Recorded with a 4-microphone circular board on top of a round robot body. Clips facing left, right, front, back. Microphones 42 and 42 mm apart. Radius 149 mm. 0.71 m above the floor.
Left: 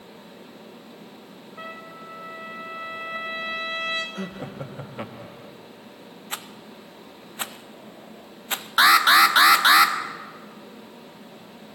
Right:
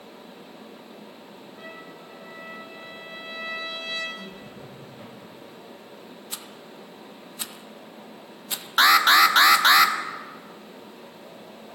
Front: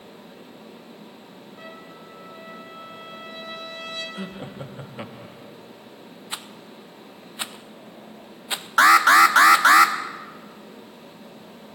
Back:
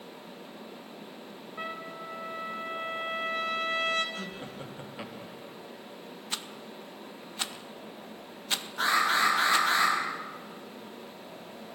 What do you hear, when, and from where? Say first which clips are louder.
1.6 s a trumpet: left 5 dB, back 5 dB; 135° left, 1.5 m
4.2 s laughter: left 6 dB, front 4 dB; 70° left, 1.1 m
6.3 s a rattle: left 7 dB, front 2 dB; 65° left, 0.8 m
8.8 s an alarm: left 1 dB, front 12 dB; 5° left, 1.0 m